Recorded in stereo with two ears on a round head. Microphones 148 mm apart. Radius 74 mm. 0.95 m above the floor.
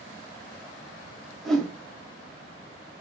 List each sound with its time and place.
1.4 s a whoosh: 5° left (ahead or behind), 0.7 m